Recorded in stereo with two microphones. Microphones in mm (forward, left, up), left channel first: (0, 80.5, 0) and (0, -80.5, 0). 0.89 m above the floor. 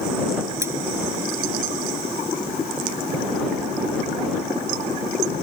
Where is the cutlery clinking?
15° right (ahead or behind).